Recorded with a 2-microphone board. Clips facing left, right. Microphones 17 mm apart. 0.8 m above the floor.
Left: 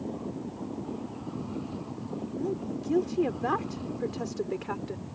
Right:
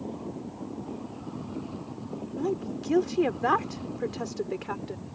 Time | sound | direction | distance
2.4 | a woman speaking | 40° right (ahead or behind) | ?